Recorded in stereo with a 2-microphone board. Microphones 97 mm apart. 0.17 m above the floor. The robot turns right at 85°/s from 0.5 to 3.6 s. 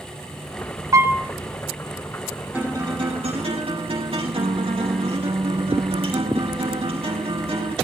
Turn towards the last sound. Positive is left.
turn(degrees=-70)